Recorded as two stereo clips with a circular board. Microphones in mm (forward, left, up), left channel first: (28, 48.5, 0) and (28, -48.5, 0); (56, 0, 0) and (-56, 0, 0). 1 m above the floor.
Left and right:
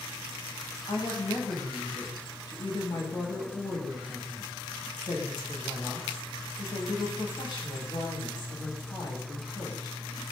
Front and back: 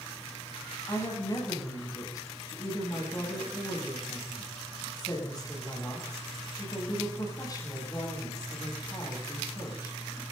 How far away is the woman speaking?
About 9 m.